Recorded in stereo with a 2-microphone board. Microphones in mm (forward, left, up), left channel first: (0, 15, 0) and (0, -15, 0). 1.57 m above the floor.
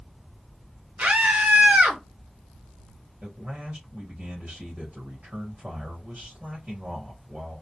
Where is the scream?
60° right (ahead or behind), 0.8 m.